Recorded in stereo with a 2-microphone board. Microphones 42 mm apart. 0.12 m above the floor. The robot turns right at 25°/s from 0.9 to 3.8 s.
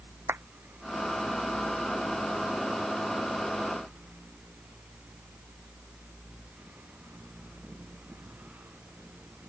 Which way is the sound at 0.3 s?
75° right (ahead or behind).